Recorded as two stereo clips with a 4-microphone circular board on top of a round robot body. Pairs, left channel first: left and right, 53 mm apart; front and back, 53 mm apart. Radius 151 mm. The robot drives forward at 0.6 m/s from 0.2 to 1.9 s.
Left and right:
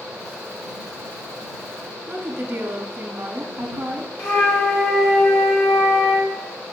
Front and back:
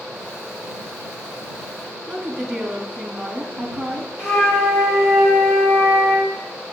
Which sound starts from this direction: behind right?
A woman speaking, at 2.1 s.